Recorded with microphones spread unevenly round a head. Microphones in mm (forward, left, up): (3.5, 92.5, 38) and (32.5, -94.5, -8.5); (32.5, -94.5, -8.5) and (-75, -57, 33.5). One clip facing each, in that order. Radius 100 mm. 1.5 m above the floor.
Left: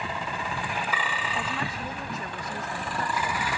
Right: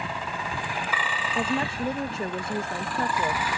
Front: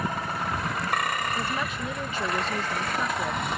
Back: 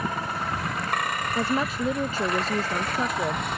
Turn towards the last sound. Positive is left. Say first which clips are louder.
# right 10 dB, back 5 dB
turn(degrees=-150)